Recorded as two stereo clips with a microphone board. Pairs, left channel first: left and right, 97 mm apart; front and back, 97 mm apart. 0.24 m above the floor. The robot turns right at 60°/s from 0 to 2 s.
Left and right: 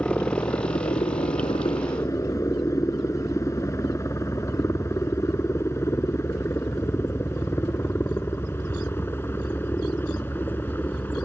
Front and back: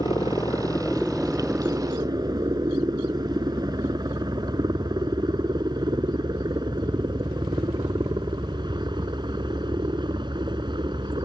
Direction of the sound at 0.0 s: 20° left.